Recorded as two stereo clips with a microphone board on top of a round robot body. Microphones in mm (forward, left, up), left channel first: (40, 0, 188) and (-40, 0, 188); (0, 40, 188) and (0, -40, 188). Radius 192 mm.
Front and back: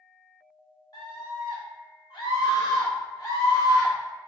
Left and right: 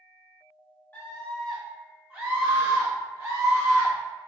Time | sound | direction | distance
0.9 | a scream | 25° left | 1.2 m